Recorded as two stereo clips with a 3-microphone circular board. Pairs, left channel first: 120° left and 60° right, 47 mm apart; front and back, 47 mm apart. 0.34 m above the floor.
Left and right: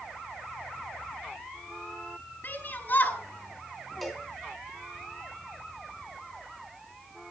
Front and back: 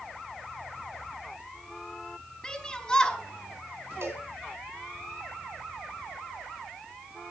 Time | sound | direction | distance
2.4 | a shout | 75° left | 5 m
4.0 | a cowbell | 150° right | 3.5 m